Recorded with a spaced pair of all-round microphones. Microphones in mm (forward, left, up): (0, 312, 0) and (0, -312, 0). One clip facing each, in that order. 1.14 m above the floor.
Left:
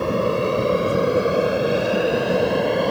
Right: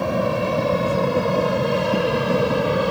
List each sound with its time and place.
0.0 s an aircraft: 15° right (ahead or behind); by 2.9 s 35° right (ahead or behind)